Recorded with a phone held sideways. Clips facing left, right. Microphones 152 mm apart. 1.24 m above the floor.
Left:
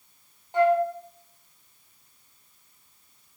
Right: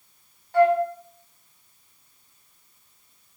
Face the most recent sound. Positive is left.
turn(degrees=20)  # may be behind; listen again after turning